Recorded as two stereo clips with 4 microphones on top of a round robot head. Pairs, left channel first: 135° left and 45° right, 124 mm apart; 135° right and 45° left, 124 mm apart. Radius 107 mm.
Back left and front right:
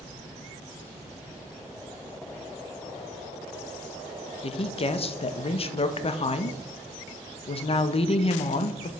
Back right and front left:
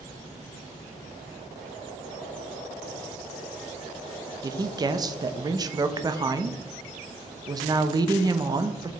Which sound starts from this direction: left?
A woman speaking, at 4.4 s.